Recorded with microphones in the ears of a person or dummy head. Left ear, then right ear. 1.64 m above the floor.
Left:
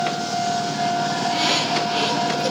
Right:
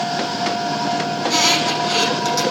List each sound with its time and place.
1.2 s a squeak: 75° right (ahead or behind), 7 m